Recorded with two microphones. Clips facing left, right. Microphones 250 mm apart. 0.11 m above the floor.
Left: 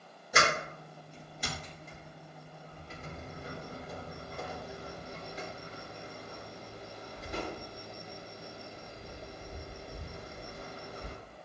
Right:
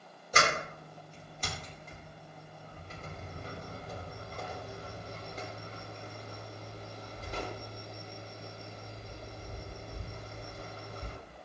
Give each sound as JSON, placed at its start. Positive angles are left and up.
{"t": 0.3, "sound": "a sliding door", "side_deg": 10, "distance_m": 2.0}